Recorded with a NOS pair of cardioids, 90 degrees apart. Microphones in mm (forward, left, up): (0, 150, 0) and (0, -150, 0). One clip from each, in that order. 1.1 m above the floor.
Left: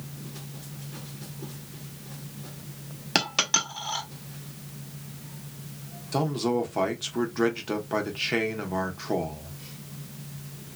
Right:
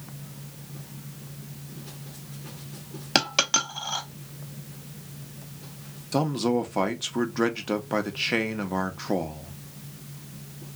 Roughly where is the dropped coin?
Ahead.